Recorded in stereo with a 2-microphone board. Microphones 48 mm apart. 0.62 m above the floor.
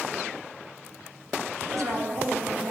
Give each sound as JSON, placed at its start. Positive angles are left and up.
{"t": 1.6, "sound": "a woman speaking", "side_deg": -75, "distance_m": 3.5}